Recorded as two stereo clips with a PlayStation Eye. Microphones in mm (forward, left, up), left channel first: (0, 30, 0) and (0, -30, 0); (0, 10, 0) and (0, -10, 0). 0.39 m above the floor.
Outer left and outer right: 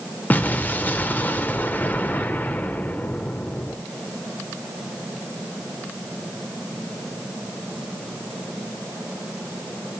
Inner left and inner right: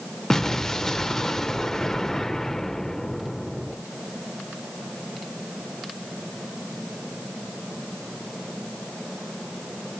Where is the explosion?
30° left (ahead or behind), 0.6 m.